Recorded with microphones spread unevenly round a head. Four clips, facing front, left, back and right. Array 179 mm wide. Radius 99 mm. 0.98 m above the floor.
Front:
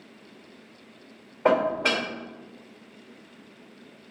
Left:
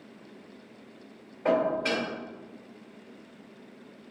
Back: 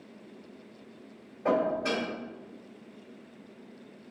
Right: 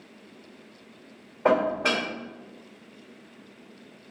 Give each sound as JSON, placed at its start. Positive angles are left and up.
{"t": 1.4, "sound": "dishes clattering", "azimuth_deg": -25, "distance_m": 2.0}